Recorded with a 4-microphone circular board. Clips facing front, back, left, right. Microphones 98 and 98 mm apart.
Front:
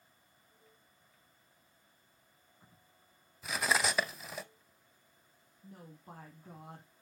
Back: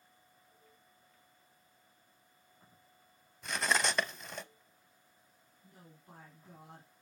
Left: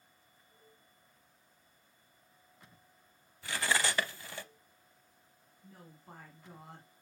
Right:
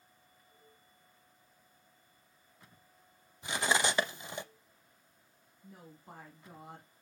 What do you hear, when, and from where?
3.4 s cutlery clinking: 80° right, 0.5 m
5.6 s a woman speaking: 10° right, 1.7 m